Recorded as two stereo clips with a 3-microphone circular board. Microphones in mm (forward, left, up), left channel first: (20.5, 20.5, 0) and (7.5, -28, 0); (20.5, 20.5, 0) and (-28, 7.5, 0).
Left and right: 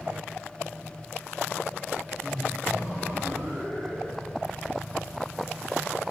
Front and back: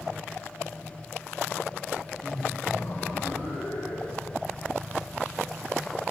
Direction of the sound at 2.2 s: Straight ahead.